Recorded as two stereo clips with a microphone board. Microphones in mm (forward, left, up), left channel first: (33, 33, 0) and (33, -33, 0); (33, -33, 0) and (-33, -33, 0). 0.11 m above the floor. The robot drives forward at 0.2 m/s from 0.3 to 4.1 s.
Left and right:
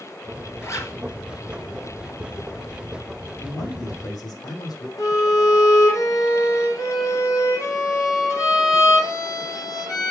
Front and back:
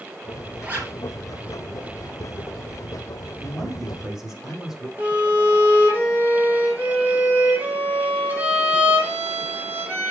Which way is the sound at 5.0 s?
120° left.